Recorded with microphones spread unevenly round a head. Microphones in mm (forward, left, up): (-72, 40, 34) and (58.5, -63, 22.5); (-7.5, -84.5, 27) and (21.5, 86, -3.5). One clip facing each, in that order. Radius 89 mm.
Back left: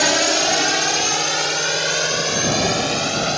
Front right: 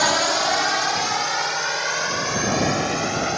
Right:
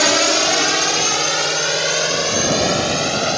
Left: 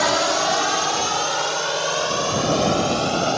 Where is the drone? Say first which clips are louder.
Back left 2 dB, right 3 dB; 160° right; by 3.4 s 170° right.